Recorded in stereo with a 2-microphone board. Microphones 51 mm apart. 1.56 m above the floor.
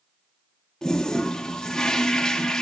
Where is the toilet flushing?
10° left (ahead or behind), 0.7 m.